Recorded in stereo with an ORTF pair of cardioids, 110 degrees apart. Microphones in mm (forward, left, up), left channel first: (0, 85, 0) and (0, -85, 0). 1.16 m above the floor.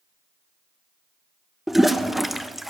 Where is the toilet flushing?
Straight ahead, 0.8 m.